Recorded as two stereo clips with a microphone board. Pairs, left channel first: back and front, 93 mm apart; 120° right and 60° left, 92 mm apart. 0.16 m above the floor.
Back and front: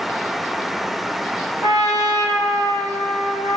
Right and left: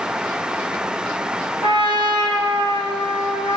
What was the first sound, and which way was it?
A trumpet, 40° left.